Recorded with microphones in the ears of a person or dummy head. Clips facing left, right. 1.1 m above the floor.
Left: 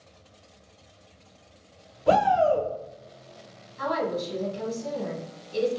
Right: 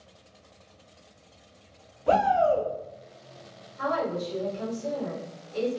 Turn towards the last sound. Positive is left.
turn(degrees=45)  # may be behind; listen again after turning